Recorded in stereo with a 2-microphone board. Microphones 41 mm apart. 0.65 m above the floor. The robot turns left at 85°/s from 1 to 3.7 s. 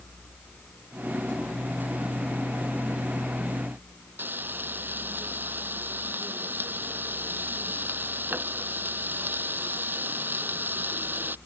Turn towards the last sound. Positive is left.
turn(degrees=-50)  # may be behind; listen again after turning